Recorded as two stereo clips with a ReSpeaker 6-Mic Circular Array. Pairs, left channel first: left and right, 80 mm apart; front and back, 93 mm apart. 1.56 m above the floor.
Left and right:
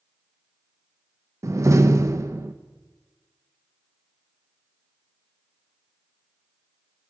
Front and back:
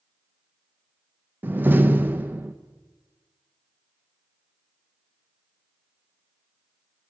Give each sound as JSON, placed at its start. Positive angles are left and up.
{"t": 1.4, "sound": "a door slam", "azimuth_deg": -120, "distance_m": 0.9}